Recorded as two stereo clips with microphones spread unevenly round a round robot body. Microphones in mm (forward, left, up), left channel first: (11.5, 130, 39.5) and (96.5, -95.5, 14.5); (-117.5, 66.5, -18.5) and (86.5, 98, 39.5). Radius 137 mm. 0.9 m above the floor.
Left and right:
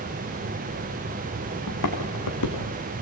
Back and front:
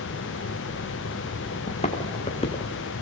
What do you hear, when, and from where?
1.7 s footsteps: 125° left, 4 m; by 2.7 s 120° left, 4 m